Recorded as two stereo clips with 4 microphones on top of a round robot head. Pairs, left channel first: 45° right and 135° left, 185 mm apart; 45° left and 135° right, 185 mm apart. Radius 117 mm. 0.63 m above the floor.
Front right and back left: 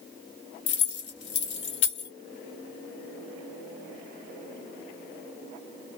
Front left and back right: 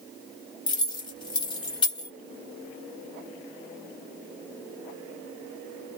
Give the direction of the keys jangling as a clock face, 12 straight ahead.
1 o'clock.